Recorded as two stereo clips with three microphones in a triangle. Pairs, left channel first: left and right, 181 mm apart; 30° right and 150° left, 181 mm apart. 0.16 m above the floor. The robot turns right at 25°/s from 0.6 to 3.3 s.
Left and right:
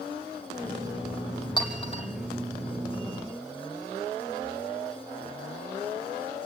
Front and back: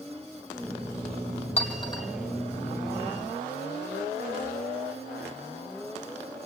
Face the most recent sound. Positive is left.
turn(degrees=70)